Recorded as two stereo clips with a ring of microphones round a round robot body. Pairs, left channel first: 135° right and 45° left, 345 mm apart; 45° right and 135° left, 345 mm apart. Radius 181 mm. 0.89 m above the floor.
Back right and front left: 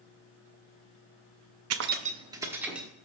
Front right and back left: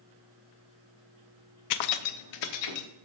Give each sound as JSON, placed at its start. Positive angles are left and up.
{"t": 1.7, "sound": "keys jangling", "azimuth_deg": -5, "distance_m": 0.5}